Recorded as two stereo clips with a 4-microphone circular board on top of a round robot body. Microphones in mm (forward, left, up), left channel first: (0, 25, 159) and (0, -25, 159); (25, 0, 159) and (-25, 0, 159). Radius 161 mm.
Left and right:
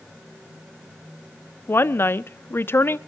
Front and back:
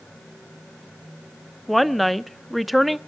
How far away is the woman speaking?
About 1.0 m.